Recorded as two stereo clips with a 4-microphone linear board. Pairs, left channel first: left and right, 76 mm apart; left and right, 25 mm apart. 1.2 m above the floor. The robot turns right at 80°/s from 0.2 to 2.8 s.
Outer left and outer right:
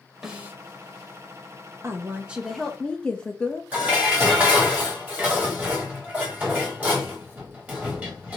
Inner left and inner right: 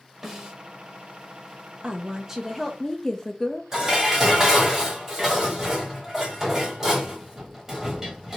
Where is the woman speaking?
60° right, 0.6 m; by 3.6 s 20° left, 0.6 m.